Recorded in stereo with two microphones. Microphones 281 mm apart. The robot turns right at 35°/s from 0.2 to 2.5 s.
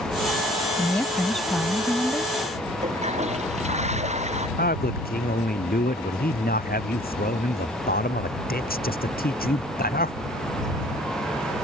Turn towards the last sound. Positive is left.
turn(degrees=30)  # may be behind; listen again after turning